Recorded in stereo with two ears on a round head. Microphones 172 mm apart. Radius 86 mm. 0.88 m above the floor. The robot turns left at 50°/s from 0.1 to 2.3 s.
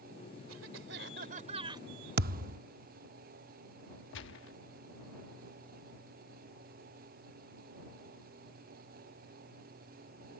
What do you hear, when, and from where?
0.5 s a cough: 95° right; by 1.9 s 160° right
2.2 s a thud: 55° right (ahead or behind); by 2.6 s 50° right (ahead or behind)
4.1 s a gunshot: 70° left (ahead or behind)